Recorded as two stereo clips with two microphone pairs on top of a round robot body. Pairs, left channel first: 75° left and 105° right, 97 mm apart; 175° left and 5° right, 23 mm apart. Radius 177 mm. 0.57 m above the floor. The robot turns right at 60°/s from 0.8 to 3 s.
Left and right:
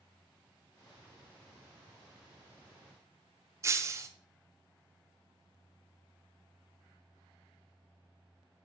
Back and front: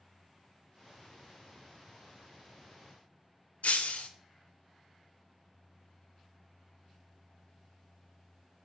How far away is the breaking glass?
About 0.7 m.